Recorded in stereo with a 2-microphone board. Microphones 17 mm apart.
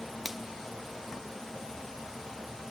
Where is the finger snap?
5° right (ahead or behind), 0.9 m.